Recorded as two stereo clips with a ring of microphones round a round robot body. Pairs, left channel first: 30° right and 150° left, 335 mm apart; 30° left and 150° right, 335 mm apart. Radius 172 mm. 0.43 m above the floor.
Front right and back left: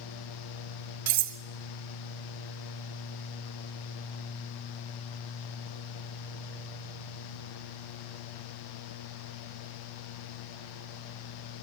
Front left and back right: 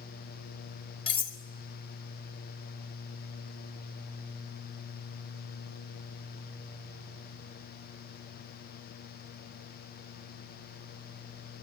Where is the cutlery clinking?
105° left, 1.4 m.